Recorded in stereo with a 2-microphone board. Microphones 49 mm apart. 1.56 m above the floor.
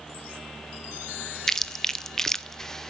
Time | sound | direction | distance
1.5 | chewing | 10° left (ahead or behind) | 0.6 m